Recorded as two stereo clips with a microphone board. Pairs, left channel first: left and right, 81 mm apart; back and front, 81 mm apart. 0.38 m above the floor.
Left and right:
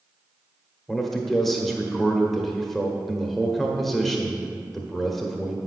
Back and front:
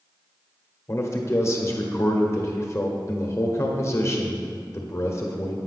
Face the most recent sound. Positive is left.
turn(degrees=175)